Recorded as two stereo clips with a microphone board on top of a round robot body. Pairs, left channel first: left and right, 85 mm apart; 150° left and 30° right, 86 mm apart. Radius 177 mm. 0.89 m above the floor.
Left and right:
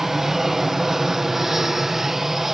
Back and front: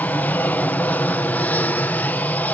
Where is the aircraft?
170° right.